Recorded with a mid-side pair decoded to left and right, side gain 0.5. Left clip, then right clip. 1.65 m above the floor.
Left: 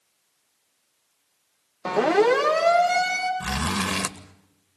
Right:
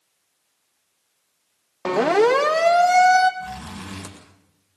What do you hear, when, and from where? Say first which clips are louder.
1.9 s a siren: right 2 dB; 25° right, 3 m; by 3.3 s 40° right, 4 m
3.4 s a zipper: left 8 dB; 65° left, 2 m